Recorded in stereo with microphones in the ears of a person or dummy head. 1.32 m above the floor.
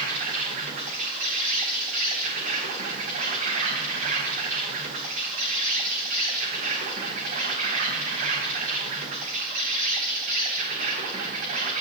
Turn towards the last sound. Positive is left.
turn(degrees=-50)  # may be behind; listen again after turning